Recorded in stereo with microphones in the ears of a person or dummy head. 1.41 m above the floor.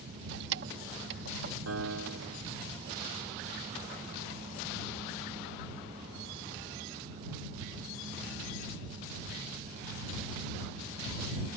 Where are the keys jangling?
65° right (ahead or behind).